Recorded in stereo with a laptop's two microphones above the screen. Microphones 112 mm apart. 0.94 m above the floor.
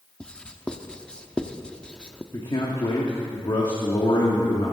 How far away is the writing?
About 0.6 m.